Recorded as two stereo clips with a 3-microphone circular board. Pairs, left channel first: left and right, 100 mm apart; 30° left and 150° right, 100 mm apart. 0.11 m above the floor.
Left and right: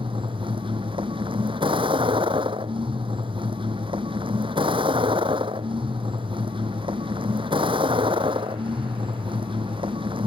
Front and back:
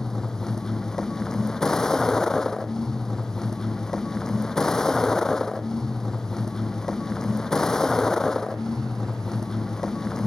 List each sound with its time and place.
0.0 s a vehicle: 55° right